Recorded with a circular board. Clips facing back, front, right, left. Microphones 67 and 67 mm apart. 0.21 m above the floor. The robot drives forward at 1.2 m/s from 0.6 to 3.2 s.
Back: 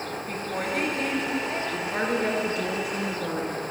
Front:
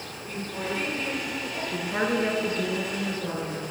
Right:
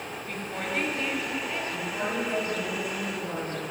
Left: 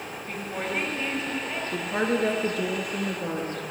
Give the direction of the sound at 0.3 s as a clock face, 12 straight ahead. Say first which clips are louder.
Back 1 dB, left 2 dB; 6 o'clock.